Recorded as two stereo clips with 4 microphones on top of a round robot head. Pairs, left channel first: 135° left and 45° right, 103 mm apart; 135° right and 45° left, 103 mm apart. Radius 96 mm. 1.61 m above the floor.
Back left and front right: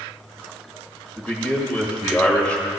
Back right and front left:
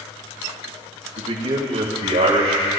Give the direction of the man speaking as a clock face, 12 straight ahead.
10 o'clock.